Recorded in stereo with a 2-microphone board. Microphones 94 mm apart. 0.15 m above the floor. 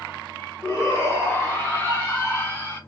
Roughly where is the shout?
Left.